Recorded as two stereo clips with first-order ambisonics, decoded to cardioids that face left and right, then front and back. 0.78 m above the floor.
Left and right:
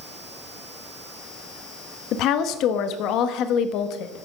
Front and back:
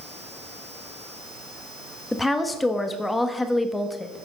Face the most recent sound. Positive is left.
turn(degrees=85)